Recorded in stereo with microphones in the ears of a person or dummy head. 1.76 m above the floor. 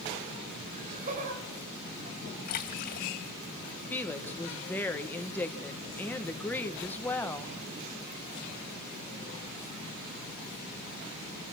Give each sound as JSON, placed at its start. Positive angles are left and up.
{"t": 0.7, "sound": "laughter", "side_deg": -45, "distance_m": 9.5}
{"t": 2.5, "sound": "a splash", "side_deg": 45, "distance_m": 2.5}
{"t": 3.9, "sound": "a woman speaking", "side_deg": 10, "distance_m": 1.4}